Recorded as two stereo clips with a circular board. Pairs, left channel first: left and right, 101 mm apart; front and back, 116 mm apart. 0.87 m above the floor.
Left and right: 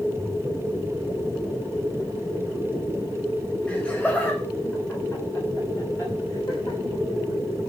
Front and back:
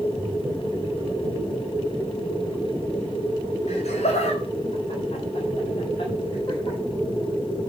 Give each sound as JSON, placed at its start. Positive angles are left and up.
{"t": 3.7, "sound": "laughter", "azimuth_deg": 10, "distance_m": 4.0}